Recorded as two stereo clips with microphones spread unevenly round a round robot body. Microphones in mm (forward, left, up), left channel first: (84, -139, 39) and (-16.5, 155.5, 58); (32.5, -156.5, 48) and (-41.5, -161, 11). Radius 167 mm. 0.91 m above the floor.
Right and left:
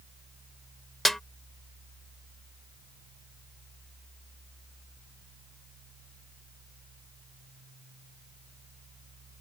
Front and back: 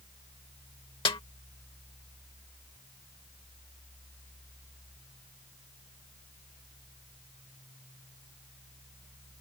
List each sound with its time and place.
1.1 s a snare drum: 20° left